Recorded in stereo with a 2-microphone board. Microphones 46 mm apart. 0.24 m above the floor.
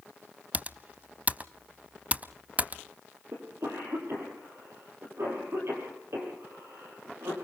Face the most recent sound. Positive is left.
turn(degrees=-70)  # may be behind; listen again after turning